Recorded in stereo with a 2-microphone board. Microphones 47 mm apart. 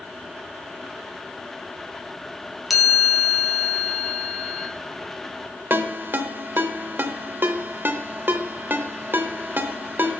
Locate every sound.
2.7 s a chime: 5° right (ahead or behind), 1.4 m
5.7 s a ringtone: 45° right (ahead or behind), 0.8 m